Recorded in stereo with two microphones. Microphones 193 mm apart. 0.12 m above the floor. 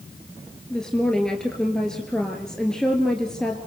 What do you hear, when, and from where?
0.7 s a woman speaking: 5° left (ahead or behind), 2 m